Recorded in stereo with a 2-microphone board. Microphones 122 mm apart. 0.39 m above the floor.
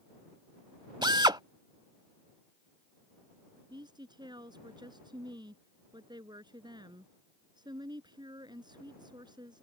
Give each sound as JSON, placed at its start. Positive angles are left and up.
{"t": 1.0, "sound": "a drill", "side_deg": -35}
{"t": 3.7, "sound": "a woman speaking", "side_deg": -35}